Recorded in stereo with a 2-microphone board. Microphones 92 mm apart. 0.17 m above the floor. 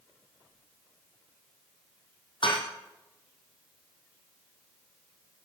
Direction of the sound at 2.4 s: 65° left (ahead or behind).